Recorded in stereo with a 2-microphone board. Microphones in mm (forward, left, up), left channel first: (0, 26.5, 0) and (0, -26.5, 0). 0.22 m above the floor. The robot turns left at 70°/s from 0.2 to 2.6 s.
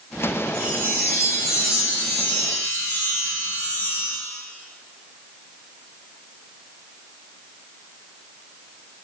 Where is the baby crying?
No baby crying in this recording.